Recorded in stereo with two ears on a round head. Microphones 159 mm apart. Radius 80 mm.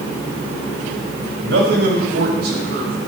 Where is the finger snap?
No finger snap in this recording.